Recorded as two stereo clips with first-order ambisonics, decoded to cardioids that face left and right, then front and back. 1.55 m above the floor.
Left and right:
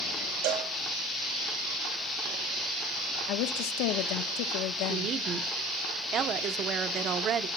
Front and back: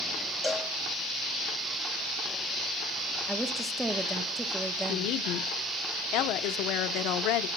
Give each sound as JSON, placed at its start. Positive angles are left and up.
{"t": 0.4, "sound": "a cowbell", "azimuth_deg": -85, "distance_m": 1.7}
{"t": 3.3, "sound": "a woman speaking", "azimuth_deg": 95, "distance_m": 1.4}
{"t": 4.9, "sound": "a woman speaking", "azimuth_deg": -35, "distance_m": 1.2}